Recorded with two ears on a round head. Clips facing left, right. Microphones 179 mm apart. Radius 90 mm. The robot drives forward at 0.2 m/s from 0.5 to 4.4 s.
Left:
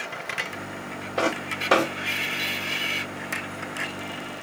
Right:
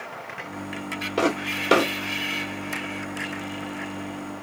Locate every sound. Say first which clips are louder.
1.2 s footsteps: right 3 dB; 45° right (ahead or behind), 1.8 m; by 1.9 s 40° right (ahead or behind), 1.8 m